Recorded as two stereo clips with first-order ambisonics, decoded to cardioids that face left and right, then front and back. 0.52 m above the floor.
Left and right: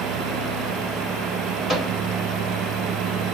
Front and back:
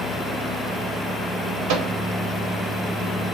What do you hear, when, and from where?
1.7 s a microwave: straight behind, 1.3 m